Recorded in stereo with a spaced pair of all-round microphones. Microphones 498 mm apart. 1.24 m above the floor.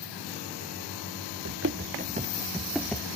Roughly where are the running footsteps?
Right.